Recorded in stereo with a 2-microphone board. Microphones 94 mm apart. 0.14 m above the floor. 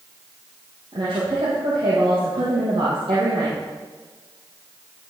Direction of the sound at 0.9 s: 70° right (ahead or behind).